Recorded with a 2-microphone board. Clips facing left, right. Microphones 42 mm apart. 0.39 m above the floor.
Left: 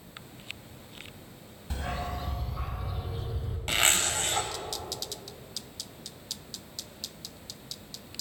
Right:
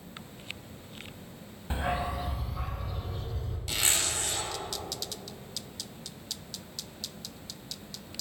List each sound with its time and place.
1.7 s a dog barking: 25° right (ahead or behind), 1.1 m; by 3.6 s 15° left (ahead or behind), 2.5 m
3.7 s a zipper: 45° left (ahead or behind), 1.5 m